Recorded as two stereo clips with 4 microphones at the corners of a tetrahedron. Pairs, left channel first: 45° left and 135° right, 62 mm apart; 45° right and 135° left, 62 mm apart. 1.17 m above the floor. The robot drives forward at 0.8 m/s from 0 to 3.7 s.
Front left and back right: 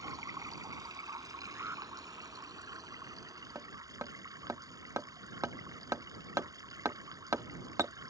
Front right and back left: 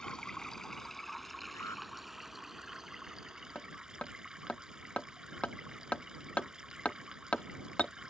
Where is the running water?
120° right; by 8.1 s 145° right.